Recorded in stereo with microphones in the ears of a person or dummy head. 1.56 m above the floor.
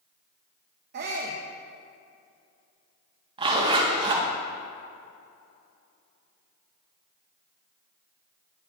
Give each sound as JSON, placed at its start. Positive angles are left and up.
{"t": 0.9, "sound": "a shout", "side_deg": -50, "distance_m": 0.9}
{"t": 3.4, "sound": "a zipper", "side_deg": -25, "distance_m": 1.5}